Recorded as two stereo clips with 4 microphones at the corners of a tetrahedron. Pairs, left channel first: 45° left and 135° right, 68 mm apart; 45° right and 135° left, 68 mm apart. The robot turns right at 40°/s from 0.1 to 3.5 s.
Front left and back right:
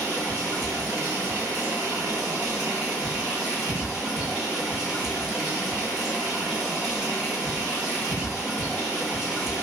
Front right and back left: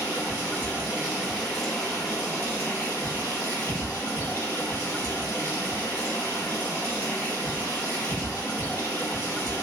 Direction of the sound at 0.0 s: 170° left.